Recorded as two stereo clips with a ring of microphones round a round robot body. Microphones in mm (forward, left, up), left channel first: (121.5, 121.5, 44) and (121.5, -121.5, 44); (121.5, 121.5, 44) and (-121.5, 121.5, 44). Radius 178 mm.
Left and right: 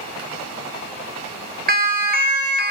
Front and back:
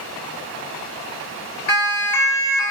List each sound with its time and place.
1.7 s a siren: 40° right, 4 m